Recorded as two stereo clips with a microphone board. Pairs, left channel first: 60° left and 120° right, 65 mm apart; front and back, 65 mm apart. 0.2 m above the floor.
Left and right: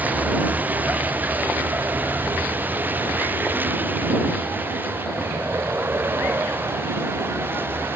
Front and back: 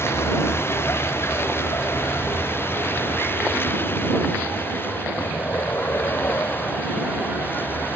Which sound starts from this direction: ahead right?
A vehicle, at 0.0 s.